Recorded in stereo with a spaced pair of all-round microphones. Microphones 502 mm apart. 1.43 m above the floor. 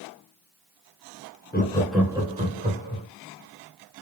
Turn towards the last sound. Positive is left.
turn(degrees=-20)  # may be behind; listen again after turning